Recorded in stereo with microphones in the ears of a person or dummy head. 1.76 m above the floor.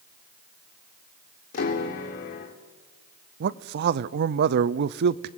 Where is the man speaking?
55° right (ahead or behind), 0.7 m.